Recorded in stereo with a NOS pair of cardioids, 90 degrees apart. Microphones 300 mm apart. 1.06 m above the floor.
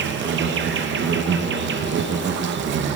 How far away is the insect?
About 0.8 m.